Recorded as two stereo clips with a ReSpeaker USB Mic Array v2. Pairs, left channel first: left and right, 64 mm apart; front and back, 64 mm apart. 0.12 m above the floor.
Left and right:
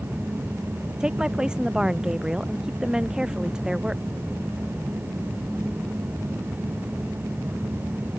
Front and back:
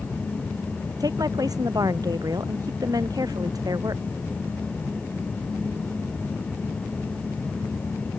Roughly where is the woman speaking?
Behind.